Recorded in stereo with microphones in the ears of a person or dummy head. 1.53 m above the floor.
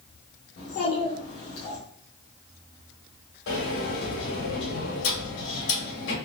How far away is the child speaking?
About 1.1 m.